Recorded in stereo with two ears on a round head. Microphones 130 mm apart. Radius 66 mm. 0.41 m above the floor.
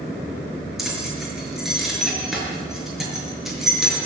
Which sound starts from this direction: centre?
Keys jangling, at 0.8 s.